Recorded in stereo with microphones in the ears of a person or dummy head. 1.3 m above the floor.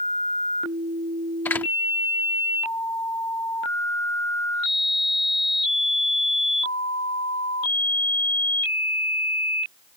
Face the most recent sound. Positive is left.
turn(degrees=15)  # may be behind; listen again after turning